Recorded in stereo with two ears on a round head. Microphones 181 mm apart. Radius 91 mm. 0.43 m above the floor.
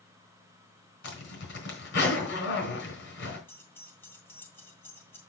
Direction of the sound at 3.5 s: 10° left (ahead or behind).